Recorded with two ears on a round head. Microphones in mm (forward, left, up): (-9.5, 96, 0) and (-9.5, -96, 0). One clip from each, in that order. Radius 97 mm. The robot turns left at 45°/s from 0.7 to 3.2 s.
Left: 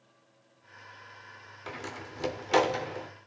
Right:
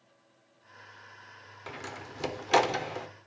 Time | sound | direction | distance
1.7 | a door slam | centre (ahead or behind) | 1.0 m